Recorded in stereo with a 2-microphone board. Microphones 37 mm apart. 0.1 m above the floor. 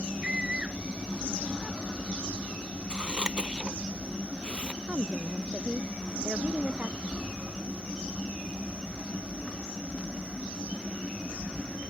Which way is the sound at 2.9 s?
30° right (ahead or behind).